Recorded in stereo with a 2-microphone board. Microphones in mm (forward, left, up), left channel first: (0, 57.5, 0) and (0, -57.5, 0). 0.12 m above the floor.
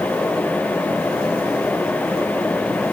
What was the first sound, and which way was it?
Only background noise.